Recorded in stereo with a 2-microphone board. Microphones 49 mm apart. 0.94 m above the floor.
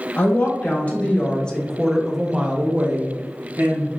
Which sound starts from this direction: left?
A woman speaking, at 0.2 s.